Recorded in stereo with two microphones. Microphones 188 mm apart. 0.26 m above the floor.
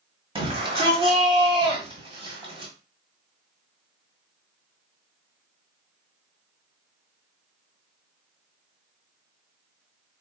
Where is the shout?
30° right (ahead or behind), 1.5 m.